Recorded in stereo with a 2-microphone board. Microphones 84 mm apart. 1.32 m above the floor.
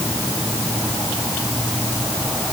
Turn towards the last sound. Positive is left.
No sound to turn to.